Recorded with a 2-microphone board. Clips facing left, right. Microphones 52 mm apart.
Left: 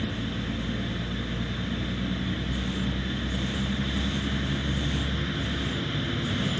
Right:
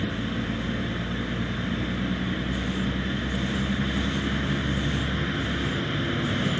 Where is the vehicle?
20° right (ahead or behind).